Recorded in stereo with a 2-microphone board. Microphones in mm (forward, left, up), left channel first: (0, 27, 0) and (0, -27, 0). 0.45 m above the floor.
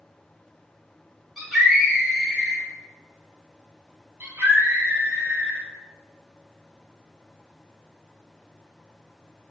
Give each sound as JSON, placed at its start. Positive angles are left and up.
{"t": 1.4, "sound": "a scream", "side_deg": -5, "distance_m": 1.6}
{"t": 4.2, "sound": "a scream", "side_deg": -30, "distance_m": 1.0}